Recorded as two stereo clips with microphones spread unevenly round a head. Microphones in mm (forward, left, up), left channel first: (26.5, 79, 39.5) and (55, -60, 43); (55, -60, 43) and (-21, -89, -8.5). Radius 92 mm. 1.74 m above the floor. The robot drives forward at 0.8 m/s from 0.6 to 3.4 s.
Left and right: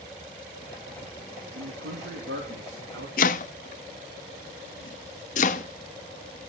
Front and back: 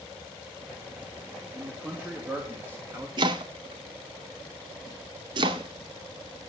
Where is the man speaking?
70° right, 3 m; by 3.1 s 95° right, 3 m.